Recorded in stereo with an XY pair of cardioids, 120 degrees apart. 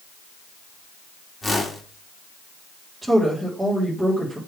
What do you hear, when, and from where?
1.4 s a whoosh: 10° left, 3 m
3.0 s a woman speaking: 15° right, 4 m